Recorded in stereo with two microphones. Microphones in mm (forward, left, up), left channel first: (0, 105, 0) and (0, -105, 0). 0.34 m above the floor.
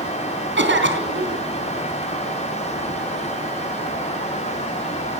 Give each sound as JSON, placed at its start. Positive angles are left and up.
{"t": 0.6, "sound": "a cough", "side_deg": -65, "distance_m": 3.5}